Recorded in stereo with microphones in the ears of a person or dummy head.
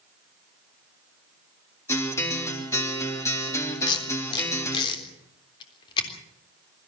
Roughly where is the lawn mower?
I don't hear a lawn mower.